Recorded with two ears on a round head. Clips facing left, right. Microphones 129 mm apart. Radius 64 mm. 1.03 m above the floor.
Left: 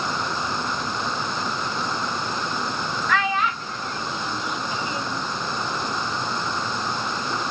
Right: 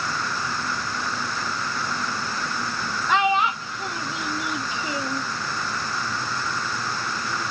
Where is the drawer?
I don't hear a drawer.